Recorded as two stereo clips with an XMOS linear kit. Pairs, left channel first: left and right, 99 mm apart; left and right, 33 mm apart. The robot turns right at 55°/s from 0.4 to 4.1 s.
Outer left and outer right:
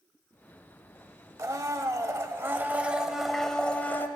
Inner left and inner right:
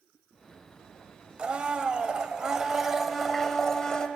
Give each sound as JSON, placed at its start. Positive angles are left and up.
{"t": 1.4, "sound": "a blender", "azimuth_deg": -105, "distance_m": 0.7}